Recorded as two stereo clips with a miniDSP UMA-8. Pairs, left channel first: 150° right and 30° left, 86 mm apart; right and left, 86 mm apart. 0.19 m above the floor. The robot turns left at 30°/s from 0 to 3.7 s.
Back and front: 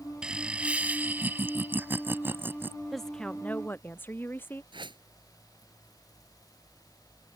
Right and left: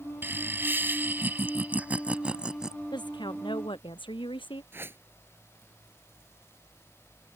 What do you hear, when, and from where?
0.2 s laughter: 95° left; by 2.8 s 20° left
2.9 s a woman speaking: 60° right; by 4.6 s 85° right
4.7 s a whoosh: 30° left